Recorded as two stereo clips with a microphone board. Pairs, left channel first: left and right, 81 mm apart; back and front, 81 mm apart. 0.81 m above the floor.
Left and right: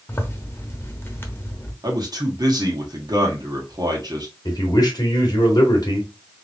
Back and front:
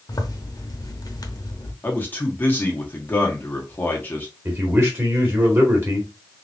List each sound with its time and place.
0.1 s a zipper: 150° left, 0.8 m
1.8 s a man speaking: 115° right, 1.4 m
4.5 s a man speaking: 55° left, 1.9 m